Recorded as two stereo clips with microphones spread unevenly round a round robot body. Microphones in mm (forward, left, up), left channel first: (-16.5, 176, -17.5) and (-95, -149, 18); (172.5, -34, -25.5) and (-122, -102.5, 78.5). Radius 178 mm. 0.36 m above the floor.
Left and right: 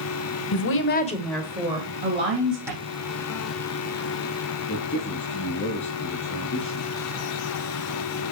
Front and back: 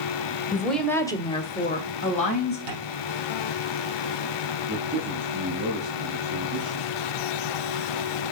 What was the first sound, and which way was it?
A woman speaking, 90° left.